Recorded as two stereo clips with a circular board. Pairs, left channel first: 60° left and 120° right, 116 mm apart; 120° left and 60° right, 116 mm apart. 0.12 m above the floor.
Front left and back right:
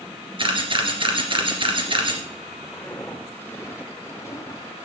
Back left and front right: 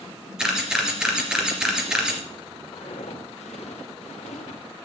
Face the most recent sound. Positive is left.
turn(degrees=120)